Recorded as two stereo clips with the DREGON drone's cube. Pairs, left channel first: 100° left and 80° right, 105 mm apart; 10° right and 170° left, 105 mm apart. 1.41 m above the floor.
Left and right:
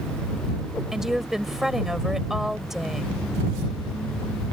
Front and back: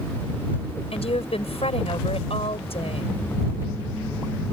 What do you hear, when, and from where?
0.9 s a woman speaking: 5° left